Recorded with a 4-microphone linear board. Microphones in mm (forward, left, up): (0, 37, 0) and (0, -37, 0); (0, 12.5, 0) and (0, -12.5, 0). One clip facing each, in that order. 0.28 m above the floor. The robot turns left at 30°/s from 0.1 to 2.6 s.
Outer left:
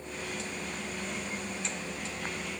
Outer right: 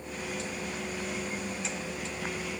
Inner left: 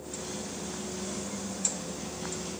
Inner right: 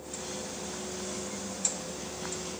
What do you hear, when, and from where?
Only background noise.